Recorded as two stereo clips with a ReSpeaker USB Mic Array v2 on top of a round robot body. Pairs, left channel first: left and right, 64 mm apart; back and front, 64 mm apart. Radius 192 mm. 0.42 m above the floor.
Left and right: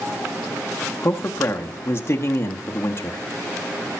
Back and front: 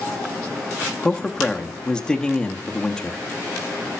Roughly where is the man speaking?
Left.